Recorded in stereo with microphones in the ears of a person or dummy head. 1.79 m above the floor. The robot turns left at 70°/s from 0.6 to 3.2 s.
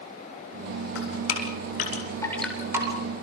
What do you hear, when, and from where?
0.9 s dripping: 70° left (ahead or behind), 8 m; by 3.0 s 35° right (ahead or behind), 8 m